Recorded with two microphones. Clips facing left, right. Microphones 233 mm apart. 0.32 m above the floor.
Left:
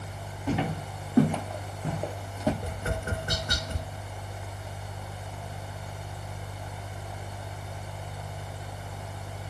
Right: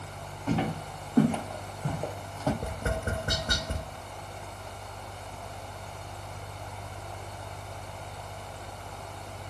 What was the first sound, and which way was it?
Footsteps, 5° left (ahead or behind).